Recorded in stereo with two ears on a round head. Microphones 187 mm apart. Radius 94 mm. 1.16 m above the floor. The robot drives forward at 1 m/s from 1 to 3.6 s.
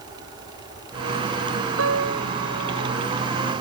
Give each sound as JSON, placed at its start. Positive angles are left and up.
{"t": 1.8, "sound": "a piano", "side_deg": -75}